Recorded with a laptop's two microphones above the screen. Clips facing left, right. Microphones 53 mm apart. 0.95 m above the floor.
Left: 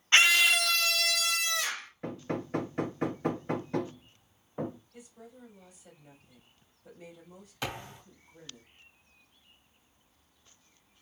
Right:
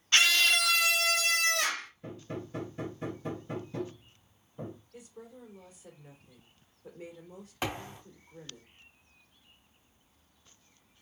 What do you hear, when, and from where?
0.1 s a scream: 25° left (ahead or behind), 0.7 m; by 1.9 s 60° right (ahead or behind), 1.0 m
2.0 s hammering: 70° left (ahead or behind), 0.6 m
4.9 s a woman speaking: 40° right (ahead or behind), 2.5 m
7.6 s a thud: 25° right (ahead or behind), 2.5 m